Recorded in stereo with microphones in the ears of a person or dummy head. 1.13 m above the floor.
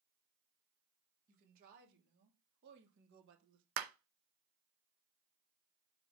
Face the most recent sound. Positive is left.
turn(degrees=-55)  # may be behind; listen again after turning